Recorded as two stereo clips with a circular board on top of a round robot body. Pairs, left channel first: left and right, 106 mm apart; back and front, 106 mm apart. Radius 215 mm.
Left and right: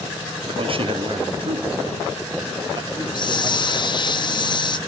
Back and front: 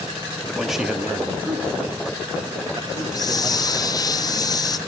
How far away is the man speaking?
About 1.4 m.